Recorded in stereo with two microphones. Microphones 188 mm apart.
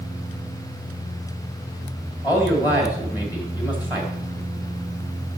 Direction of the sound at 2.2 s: 20° left (ahead or behind).